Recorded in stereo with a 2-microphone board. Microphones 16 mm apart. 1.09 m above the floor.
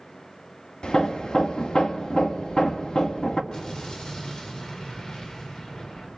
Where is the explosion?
45° left (ahead or behind), 4.5 m.